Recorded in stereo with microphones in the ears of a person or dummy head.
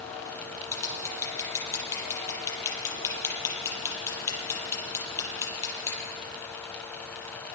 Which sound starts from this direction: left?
Scissors, at 0.7 s.